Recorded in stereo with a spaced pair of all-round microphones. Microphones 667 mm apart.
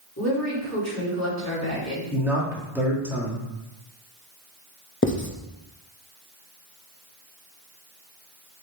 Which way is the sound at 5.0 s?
20° left (ahead or behind).